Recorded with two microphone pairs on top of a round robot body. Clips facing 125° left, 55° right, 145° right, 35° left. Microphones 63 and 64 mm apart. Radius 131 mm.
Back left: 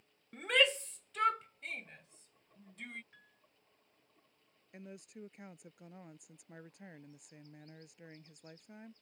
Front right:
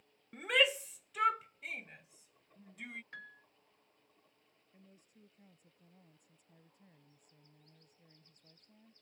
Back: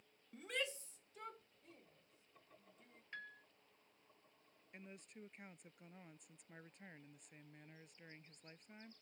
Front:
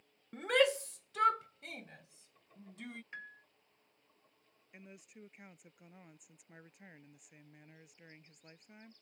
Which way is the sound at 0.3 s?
30° left.